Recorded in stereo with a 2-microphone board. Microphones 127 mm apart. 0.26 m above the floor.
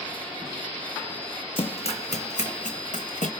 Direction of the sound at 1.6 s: 45° left (ahead or behind).